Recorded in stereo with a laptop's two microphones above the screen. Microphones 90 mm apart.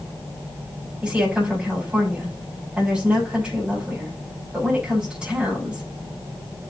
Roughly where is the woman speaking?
Centre.